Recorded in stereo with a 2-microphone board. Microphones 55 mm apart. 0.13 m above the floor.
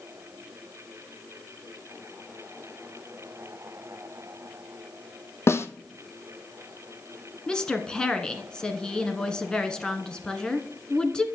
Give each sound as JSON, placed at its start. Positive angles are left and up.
{"t": 5.5, "sound": "a snare drum", "side_deg": 50, "distance_m": 0.7}
{"t": 7.5, "sound": "a woman speaking", "side_deg": 15, "distance_m": 1.1}